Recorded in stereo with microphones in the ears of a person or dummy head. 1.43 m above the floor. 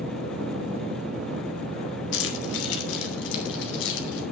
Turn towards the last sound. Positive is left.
turn(degrees=75)  # may be behind; listen again after turning